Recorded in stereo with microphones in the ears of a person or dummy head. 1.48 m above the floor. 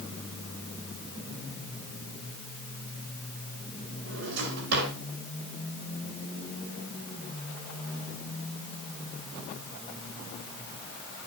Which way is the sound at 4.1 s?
70° right (ahead or behind).